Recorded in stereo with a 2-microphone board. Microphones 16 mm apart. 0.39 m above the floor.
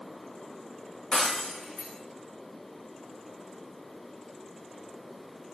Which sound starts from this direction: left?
Breaking glass, at 1.1 s.